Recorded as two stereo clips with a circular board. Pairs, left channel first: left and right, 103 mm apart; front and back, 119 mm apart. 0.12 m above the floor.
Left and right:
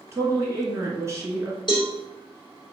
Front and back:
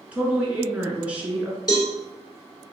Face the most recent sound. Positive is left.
turn(degrees=50)